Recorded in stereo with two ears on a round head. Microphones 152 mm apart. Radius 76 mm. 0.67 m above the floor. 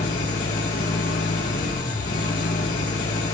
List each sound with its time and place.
0.0 s an engine running: 55° left (ahead or behind), 5 m